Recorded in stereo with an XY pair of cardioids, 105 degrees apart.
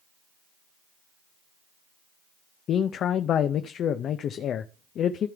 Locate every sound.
2.7 s a man speaking: 65° left, 0.6 m